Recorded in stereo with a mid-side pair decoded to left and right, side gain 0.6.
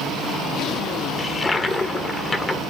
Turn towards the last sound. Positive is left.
turn(degrees=20)